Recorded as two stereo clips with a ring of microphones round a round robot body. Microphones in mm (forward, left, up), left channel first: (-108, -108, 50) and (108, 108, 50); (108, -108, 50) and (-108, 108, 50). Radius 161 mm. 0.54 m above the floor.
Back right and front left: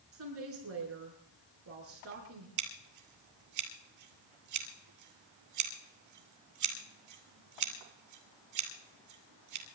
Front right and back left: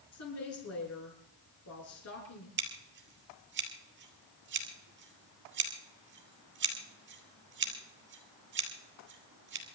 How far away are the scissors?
About 2.5 m.